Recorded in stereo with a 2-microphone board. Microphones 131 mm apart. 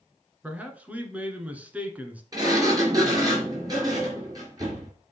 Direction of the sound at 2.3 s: 30° right (ahead or behind).